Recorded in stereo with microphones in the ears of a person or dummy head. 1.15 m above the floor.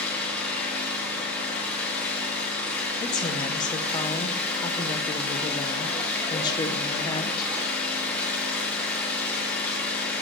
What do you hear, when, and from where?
0.0 s an engine running: 10° left (ahead or behind), 1.3 m
3.0 s a woman speaking: 15° left (ahead or behind), 0.6 m